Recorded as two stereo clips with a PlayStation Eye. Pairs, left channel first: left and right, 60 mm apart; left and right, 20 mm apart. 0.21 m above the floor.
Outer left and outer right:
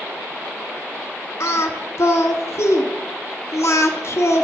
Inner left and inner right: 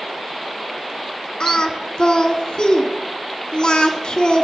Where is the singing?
60° left (ahead or behind), 0.7 m.